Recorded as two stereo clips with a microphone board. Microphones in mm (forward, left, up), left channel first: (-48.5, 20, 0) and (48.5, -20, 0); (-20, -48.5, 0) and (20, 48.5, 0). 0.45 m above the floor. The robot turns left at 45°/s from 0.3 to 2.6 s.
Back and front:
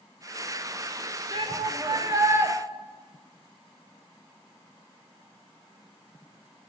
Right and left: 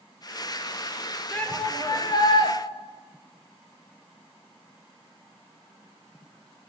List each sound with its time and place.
1.3 s a shout: 35° right, 1.5 m; by 2.5 s 90° right, 1.5 m